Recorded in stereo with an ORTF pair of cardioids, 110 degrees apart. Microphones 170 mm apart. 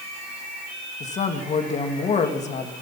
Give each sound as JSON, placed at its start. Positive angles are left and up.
{"t": 1.0, "sound": "a woman speaking", "azimuth_deg": 45, "distance_m": 2.0}